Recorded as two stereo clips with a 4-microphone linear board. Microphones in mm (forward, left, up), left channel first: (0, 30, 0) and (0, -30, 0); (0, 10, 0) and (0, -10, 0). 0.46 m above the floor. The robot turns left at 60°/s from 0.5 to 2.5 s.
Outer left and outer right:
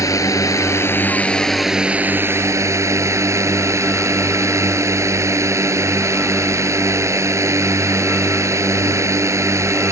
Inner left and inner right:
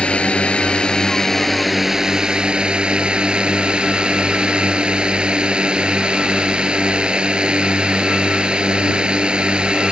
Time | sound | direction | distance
0.0 | a drone | 65° left | ?